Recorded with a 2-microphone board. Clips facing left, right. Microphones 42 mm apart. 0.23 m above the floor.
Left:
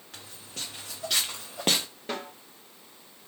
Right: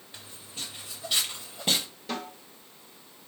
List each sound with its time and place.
0.1 s footsteps: 80° left, 3 m; by 1.9 s 55° left (ahead or behind), 0.9 m
2.1 s a snare drum: 35° left (ahead or behind), 3 m